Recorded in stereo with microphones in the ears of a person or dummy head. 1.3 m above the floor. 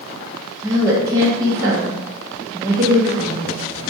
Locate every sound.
0.6 s a woman speaking: 20° right (ahead or behind), 0.6 m